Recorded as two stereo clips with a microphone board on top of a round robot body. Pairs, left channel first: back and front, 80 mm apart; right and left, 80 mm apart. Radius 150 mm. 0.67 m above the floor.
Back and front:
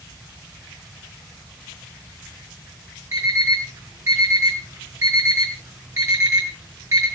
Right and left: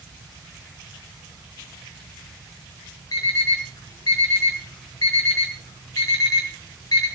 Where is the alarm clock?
50° right, 6.5 m.